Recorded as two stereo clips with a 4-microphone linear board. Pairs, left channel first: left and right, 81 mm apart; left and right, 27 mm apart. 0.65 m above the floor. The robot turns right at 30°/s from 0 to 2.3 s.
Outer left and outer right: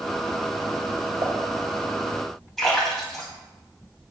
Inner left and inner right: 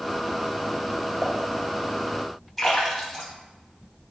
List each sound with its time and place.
1.2 s dishes clattering: 65° right (ahead or behind), 1.6 m; by 1.4 s 70° right (ahead or behind), 1.6 m
2.6 s a splash: 5° left (ahead or behind), 3 m